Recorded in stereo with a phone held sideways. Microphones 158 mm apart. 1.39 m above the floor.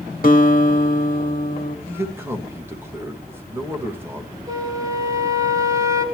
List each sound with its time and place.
0.2 s a guitar: 55° left (ahead or behind), 1.5 m
1.9 s a man speaking: 15° right (ahead or behind), 1.9 m
4.5 s a flute: 20° right (ahead or behind), 3 m